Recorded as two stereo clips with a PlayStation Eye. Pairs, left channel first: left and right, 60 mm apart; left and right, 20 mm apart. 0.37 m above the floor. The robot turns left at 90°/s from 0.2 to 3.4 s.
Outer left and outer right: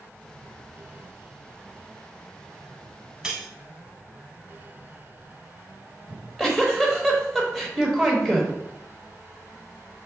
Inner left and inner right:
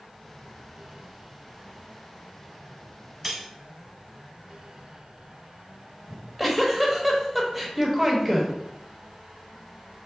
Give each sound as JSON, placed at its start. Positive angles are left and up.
{"t": 3.2, "sound": "cutlery clinking", "side_deg": -10, "distance_m": 0.8}
{"t": 6.1, "sound": "a giggle", "side_deg": 0, "distance_m": 1.1}